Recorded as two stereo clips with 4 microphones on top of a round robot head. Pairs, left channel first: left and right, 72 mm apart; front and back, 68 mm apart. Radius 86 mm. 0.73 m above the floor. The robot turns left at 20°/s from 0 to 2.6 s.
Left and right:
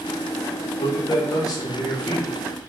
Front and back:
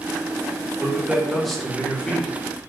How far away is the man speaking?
About 1.3 m.